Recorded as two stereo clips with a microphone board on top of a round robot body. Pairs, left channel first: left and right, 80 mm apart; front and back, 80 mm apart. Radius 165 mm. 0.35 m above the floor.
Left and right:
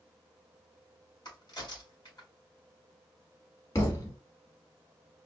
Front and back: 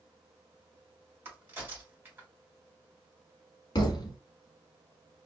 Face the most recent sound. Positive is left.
turn(degrees=40)